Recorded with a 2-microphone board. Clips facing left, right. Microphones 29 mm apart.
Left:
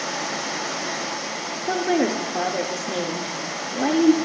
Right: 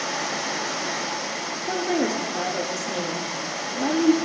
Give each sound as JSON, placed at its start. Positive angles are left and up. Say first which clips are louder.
{"t": 1.7, "sound": "a woman speaking", "louder": "left 3 dB", "side_deg": 30, "distance_m": 1.7}